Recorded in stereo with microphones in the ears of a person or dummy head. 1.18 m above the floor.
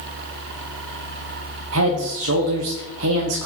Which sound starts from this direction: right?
A man speaking, at 1.7 s.